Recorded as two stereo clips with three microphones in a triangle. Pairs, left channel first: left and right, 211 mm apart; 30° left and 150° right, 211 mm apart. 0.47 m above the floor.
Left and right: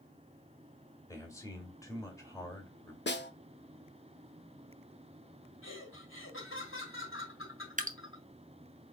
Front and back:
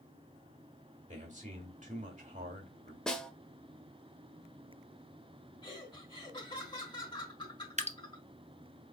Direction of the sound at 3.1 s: 115° left.